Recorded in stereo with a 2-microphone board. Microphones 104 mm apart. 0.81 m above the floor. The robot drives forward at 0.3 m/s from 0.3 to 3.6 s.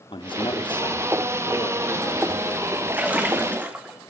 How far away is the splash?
About 2 m.